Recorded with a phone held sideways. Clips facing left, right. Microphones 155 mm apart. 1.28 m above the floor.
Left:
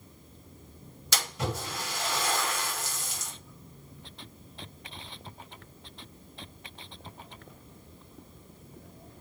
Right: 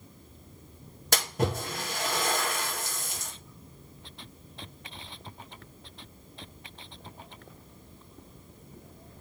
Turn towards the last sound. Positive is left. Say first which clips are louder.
# right 5 dB
turn(degrees=-50)  # may be behind; listen again after turning